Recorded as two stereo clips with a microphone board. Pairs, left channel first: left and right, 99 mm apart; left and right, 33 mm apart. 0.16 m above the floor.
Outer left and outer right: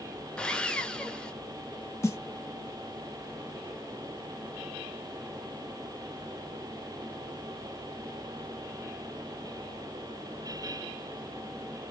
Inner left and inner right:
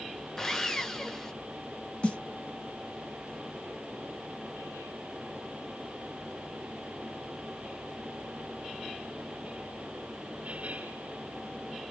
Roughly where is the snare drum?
Left.